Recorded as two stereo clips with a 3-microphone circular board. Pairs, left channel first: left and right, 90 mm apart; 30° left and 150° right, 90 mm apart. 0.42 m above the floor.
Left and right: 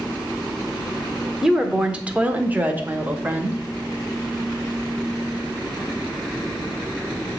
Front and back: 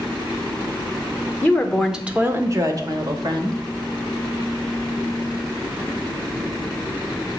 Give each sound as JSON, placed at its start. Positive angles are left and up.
{"t": 1.4, "sound": "a woman speaking", "azimuth_deg": -15, "distance_m": 0.8}